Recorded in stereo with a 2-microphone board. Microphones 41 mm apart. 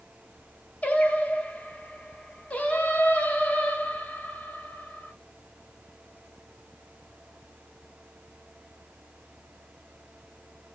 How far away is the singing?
About 1.1 m.